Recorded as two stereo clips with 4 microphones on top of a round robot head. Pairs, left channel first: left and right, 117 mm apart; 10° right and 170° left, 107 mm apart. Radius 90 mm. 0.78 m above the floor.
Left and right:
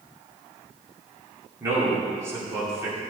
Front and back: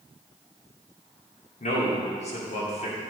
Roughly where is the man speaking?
Ahead.